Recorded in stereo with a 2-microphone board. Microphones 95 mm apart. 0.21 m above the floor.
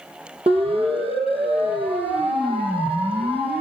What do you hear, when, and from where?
0.5 s a siren: 80° right, 6 m